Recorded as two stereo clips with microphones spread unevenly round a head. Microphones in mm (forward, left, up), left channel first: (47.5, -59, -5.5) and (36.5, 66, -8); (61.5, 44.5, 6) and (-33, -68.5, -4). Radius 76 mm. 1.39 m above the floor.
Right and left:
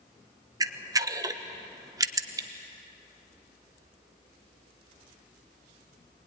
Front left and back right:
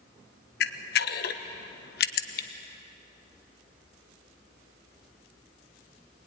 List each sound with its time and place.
0.6 s a camera shutter: 30° left, 1.1 m